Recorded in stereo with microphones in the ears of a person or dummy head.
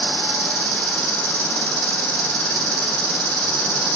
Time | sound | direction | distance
0.0 | an insect | 55° right (ahead or behind) | 3 m